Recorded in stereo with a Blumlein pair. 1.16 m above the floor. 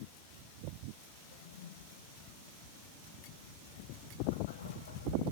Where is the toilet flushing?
60° left.